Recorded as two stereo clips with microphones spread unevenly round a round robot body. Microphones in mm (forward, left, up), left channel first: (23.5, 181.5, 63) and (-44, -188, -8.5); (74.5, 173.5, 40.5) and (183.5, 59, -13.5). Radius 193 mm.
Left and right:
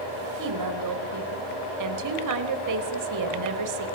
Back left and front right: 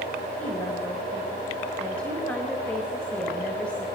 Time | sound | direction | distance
0.4 | a woman speaking | 135° right | 3.5 m